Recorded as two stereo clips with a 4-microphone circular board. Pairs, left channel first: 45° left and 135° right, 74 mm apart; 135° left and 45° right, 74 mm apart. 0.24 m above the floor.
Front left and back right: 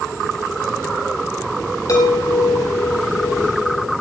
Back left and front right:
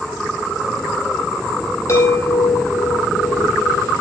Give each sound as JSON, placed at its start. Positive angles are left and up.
{"t": 1.9, "sound": "a chime", "azimuth_deg": 85, "distance_m": 8.0}